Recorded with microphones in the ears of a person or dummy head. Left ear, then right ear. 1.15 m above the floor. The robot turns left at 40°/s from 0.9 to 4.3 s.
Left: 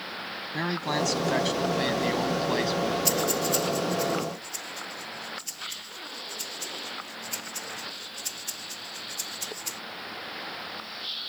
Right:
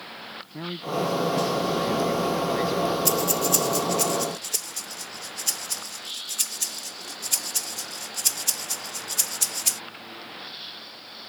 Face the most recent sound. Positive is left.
turn(degrees=-55)  # may be behind; listen again after turning